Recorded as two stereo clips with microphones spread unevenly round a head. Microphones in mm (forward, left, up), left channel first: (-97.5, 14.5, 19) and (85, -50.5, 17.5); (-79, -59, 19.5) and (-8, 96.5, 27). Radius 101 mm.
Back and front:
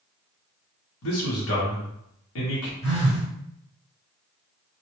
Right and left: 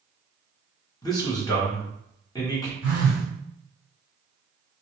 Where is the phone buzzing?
140° right, 1.7 m.